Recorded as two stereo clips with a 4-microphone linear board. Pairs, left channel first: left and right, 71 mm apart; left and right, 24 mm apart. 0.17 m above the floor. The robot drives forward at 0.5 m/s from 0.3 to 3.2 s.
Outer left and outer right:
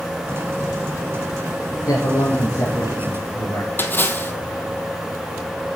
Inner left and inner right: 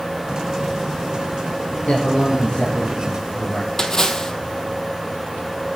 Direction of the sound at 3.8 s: 30° left (ahead or behind).